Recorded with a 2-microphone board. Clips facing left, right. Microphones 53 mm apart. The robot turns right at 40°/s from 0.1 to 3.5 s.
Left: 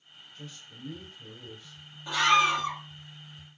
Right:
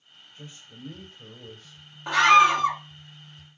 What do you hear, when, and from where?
0.3 s a man speaking: 155° right, 3.5 m; by 2.0 s 95° right, 3.5 m
2.1 s a scream: 60° right (ahead or behind), 1.7 m; by 2.8 s 70° right (ahead or behind), 1.7 m